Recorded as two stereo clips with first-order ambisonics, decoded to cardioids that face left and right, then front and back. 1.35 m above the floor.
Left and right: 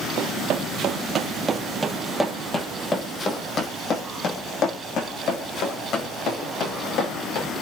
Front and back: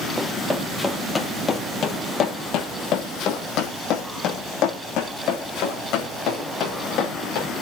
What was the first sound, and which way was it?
Running footsteps, 95° right.